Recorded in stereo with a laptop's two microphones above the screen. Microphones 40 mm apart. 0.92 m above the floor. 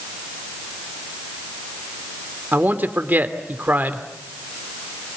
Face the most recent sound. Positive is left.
turn(degrees=-50)  # may be behind; listen again after turning